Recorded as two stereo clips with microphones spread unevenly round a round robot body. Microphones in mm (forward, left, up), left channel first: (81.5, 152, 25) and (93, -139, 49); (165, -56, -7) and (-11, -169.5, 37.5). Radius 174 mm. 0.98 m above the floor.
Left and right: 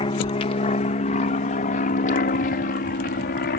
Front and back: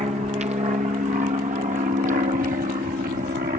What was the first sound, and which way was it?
An aircraft, 150° left.